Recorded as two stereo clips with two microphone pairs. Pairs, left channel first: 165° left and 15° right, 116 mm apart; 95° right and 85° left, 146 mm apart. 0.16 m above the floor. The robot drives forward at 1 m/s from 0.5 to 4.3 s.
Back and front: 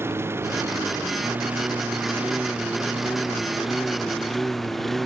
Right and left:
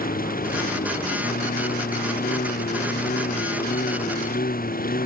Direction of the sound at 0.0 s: 85° right.